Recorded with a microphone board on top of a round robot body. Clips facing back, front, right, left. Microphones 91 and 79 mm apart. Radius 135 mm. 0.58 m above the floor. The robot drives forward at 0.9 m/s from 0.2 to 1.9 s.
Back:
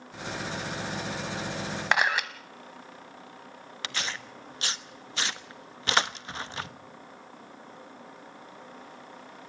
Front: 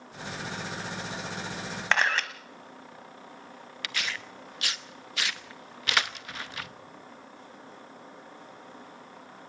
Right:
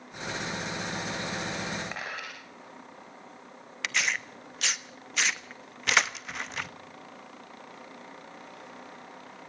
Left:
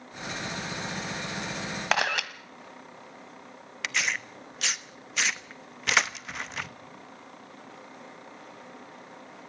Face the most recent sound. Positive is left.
turn(degrees=180)